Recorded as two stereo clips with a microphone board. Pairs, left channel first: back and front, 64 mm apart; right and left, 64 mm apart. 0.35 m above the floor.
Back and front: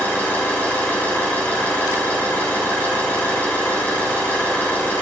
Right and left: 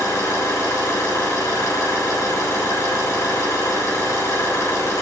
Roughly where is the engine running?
Behind right.